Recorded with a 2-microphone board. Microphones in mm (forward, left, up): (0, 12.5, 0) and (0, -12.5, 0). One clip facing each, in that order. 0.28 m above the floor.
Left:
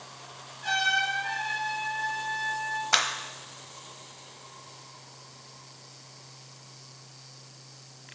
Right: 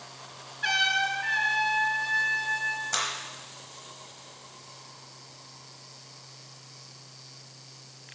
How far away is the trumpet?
About 3 m.